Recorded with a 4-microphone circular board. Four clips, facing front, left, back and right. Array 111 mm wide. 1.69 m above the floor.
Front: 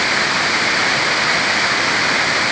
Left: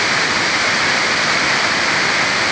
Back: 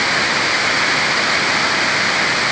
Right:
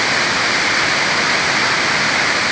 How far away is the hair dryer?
No hair dryer in this recording.